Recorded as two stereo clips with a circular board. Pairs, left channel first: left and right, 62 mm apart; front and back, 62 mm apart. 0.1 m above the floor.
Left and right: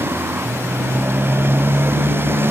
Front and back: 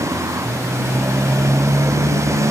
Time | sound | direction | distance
0.0 | a motorcycle | 145° right | ?